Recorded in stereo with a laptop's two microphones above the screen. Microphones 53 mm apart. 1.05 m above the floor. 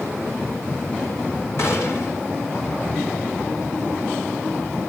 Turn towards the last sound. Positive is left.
turn(degrees=60)  # may be behind; listen again after turning